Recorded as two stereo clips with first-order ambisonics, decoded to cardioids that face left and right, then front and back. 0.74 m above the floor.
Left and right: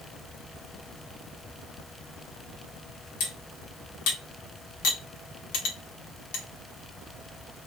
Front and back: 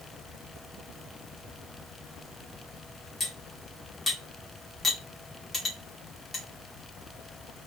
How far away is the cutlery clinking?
About 0.9 m.